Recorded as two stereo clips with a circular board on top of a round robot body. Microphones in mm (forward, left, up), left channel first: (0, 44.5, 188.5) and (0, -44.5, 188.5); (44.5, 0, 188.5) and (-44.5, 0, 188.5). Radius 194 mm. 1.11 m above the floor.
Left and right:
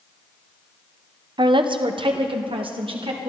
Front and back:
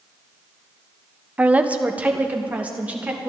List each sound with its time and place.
1.4 s a woman speaking: 105° right, 1.0 m